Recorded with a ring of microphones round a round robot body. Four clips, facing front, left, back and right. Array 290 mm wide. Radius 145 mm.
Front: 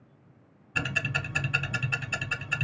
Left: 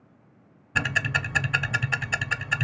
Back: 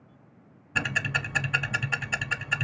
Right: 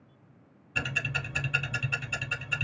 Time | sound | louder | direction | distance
0.8 | ticking | left 7 dB, back 3 dB | 110° left | 0.8 m